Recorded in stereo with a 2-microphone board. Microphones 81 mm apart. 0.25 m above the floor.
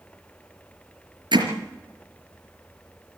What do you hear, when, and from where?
1.3 s hammering: 70° right (ahead or behind), 4 m